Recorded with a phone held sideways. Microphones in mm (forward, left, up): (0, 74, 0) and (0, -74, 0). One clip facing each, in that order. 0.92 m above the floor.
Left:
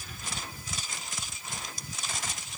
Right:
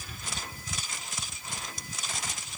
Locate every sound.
Only background noise.